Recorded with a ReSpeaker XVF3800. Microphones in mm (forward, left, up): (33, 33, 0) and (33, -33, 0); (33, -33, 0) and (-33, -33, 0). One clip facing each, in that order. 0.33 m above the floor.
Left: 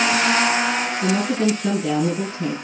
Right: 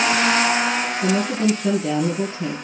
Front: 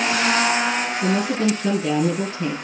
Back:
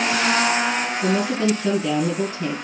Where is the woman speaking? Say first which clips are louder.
Even, even; 55° left, 5.5 m.